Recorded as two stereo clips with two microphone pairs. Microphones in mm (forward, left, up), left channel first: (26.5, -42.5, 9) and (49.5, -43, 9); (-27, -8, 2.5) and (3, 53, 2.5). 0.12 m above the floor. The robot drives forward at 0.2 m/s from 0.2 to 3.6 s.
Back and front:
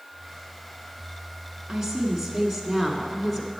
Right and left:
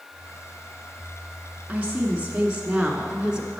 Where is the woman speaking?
50° left, 1.1 m; by 3.6 s 115° left, 1.1 m.